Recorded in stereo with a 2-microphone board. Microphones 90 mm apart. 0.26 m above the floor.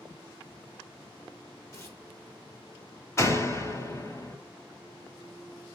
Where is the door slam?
30° left (ahead or behind), 1.2 m.